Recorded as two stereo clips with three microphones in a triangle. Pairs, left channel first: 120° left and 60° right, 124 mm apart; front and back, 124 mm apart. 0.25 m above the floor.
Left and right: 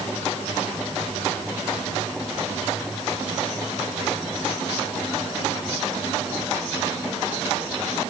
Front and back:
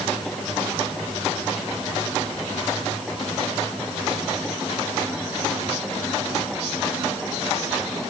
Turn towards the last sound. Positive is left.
No sound to turn to.